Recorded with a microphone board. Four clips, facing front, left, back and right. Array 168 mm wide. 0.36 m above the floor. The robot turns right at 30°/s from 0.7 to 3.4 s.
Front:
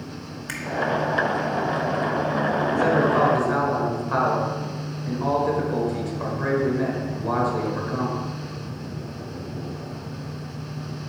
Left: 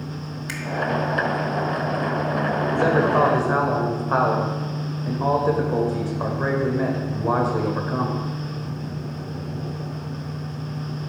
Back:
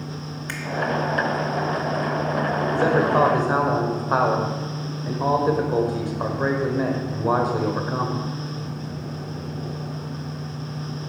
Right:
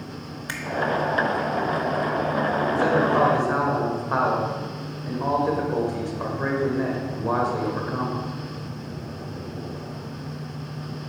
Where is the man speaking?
125° left, 1.2 m; by 8.2 s 145° left, 1.2 m.